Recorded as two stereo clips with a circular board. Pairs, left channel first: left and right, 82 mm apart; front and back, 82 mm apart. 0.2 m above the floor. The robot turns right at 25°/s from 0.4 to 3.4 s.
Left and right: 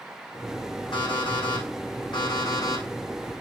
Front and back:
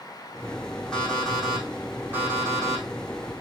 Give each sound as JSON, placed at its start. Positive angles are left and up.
{"t": 0.9, "sound": "an alarm clock", "azimuth_deg": 80, "distance_m": 4.5}